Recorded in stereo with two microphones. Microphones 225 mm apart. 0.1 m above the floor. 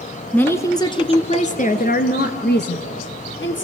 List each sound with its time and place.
0.3 s a woman speaking: 5° left (ahead or behind), 1.1 m; by 3.6 s 60° left (ahead or behind), 2 m